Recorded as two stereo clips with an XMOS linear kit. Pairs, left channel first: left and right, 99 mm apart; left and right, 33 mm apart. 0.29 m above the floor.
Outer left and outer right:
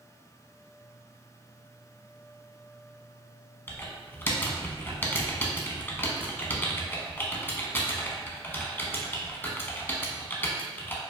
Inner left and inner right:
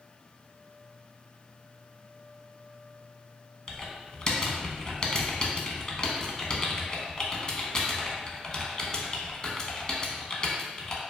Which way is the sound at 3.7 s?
20° left (ahead or behind).